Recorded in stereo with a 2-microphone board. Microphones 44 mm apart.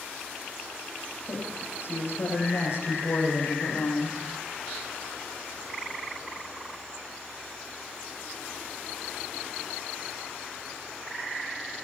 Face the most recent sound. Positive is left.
turn(degrees=75)  # may be behind; listen again after turning